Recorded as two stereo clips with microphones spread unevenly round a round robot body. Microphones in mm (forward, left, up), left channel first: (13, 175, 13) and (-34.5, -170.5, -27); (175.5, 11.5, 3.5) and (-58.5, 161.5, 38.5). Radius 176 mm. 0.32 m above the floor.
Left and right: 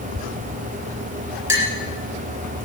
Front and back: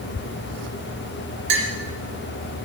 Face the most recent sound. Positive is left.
turn(degrees=180)